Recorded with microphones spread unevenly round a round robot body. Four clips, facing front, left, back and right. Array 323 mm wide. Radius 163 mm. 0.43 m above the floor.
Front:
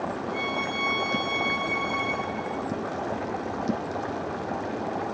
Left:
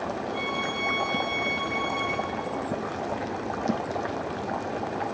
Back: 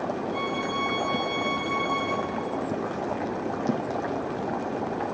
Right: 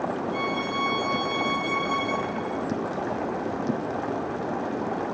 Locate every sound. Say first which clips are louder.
0.3 s a violin: right 3 dB, back 1 dB; 100° right, 0.5 m